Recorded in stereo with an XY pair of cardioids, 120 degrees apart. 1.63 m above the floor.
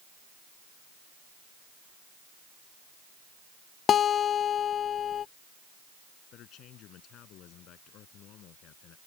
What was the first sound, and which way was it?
A guitar, 45° left.